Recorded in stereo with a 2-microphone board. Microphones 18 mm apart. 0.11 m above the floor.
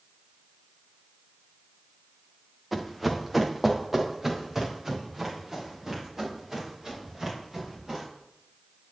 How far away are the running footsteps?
About 1.7 m.